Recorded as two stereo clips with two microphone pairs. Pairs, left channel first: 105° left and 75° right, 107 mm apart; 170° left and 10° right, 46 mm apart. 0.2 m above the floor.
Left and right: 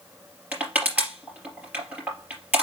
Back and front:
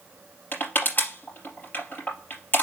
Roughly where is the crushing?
Behind right.